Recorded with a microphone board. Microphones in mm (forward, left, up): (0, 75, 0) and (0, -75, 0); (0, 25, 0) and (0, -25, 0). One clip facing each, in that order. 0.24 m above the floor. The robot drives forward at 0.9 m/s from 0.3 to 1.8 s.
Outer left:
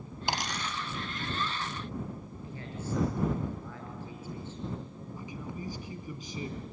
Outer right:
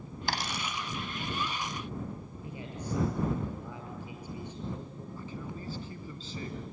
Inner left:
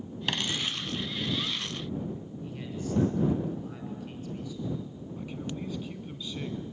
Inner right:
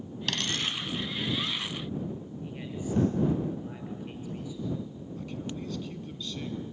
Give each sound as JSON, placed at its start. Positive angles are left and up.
{"t": 0.3, "sound": "a dropped coin", "side_deg": 20, "distance_m": 0.8}
{"t": 2.4, "sound": "a man speaking", "side_deg": -15, "distance_m": 6.0}
{"t": 5.2, "sound": "a man speaking", "side_deg": 15, "distance_m": 1.8}